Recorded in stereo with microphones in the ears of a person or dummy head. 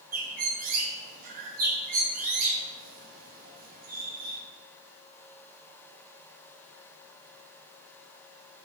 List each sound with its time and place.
0.1 s a bird: 40° right (ahead or behind), 0.5 m